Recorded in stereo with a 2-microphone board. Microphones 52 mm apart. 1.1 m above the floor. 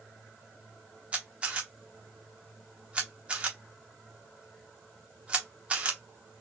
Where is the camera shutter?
25° right (ahead or behind), 0.9 m.